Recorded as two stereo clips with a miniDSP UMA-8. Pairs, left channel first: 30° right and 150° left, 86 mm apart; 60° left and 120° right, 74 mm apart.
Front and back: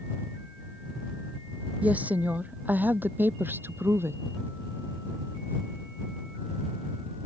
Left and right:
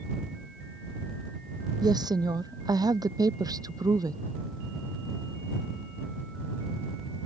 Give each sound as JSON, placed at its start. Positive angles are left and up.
{"t": 1.8, "sound": "a woman speaking", "azimuth_deg": -140}